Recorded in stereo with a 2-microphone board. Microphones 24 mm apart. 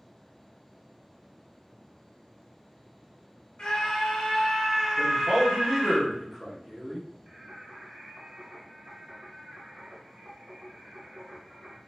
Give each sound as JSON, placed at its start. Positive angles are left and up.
{"t": 3.6, "sound": "a scream", "side_deg": 50, "distance_m": 1.6}
{"t": 5.0, "sound": "a man speaking", "side_deg": -20, "distance_m": 1.3}
{"t": 7.3, "sound": "singing", "side_deg": -50, "distance_m": 0.9}